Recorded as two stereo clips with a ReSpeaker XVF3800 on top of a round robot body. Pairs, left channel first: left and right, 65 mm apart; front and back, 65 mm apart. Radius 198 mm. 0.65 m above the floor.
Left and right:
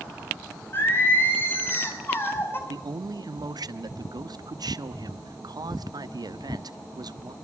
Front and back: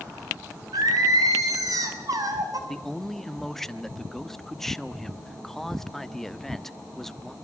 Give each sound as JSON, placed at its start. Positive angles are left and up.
{"t": 0.7, "sound": "singing", "azimuth_deg": 150, "distance_m": 5.0}
{"t": 2.7, "sound": "a man speaking", "azimuth_deg": -85, "distance_m": 1.4}